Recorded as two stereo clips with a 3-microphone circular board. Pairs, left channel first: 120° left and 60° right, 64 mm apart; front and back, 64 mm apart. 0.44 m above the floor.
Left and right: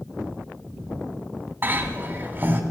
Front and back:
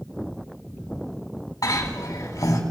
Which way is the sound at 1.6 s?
5° right.